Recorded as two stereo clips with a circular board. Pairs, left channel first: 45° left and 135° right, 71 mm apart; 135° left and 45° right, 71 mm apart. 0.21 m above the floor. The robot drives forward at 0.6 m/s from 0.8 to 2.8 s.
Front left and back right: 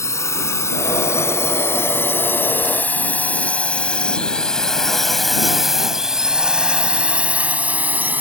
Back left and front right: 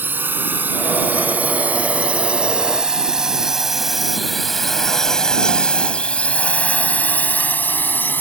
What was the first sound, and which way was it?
A drone, 10° left.